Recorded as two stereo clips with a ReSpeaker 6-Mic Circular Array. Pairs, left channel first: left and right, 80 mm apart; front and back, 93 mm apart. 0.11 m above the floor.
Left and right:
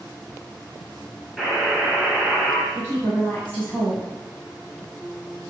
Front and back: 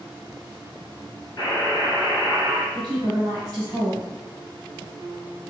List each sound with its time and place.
1.4 s a buzzer: straight ahead, 1.6 m
2.7 s a woman speaking: 145° left, 1.9 m